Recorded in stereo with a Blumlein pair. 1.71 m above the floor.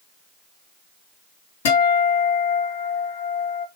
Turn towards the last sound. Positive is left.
turn(degrees=55)